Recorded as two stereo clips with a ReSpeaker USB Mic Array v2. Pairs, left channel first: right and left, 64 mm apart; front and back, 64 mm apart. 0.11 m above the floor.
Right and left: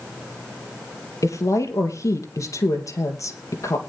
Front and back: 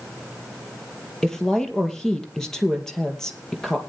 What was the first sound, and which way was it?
A woman speaking, 80° right.